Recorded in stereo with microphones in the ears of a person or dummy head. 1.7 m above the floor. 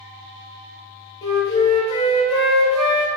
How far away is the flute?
About 0.6 m.